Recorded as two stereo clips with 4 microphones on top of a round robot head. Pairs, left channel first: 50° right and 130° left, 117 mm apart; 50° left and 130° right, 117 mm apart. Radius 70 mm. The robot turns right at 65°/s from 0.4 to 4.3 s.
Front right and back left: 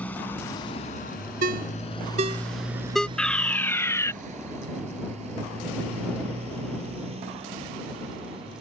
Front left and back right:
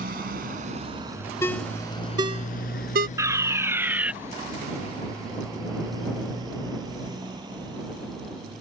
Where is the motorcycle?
130° right; by 8.6 s 175° left.